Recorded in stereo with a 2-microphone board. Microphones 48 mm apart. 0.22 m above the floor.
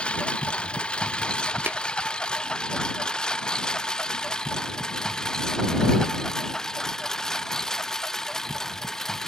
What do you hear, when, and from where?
0.0 s a lawn mower: 20° left (ahead or behind); by 9.3 s 10° left (ahead or behind)
1.7 s tapping: 45° right (ahead or behind)